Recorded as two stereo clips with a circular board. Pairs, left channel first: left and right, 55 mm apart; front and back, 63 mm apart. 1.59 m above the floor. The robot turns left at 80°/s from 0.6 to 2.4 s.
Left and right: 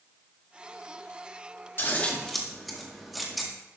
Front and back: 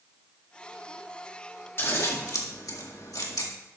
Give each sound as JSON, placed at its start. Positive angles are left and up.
{"t": 1.8, "sound": "scissors", "azimuth_deg": 50, "distance_m": 1.9}